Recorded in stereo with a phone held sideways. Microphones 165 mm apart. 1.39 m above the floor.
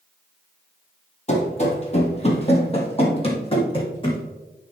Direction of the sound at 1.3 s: 40° left (ahead or behind).